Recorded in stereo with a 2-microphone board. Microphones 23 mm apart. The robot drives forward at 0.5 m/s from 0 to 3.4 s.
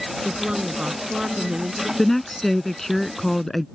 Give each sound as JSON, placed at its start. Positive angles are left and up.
{"t": 0.2, "sound": "a woman speaking", "side_deg": -35}
{"t": 2.0, "sound": "a woman speaking", "side_deg": 10}